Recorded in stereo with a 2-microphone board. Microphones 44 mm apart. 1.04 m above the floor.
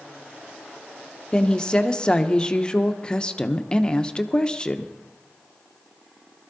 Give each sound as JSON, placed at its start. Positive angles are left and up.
{"t": 1.3, "sound": "a woman speaking", "side_deg": 20, "distance_m": 0.8}